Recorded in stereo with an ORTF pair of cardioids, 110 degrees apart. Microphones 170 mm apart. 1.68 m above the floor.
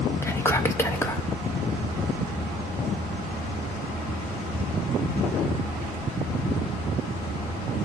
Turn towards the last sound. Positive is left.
turn(degrees=15)